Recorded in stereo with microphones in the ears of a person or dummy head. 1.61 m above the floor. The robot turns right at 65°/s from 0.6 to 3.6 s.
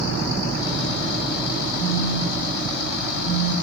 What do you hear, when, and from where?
1.8 s a phone buzzing: 140° left, 1.1 m; by 3.5 s 105° right, 1.1 m